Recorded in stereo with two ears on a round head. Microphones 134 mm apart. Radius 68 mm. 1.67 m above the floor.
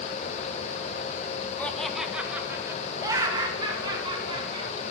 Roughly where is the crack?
No crack in this recording.